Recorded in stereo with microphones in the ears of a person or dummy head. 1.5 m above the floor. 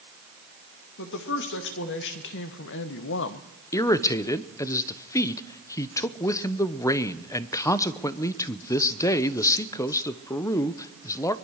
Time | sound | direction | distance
1.0 | a woman speaking | 60° left (ahead or behind) | 2.5 m
3.7 | a man speaking | 20° left (ahead or behind) | 0.9 m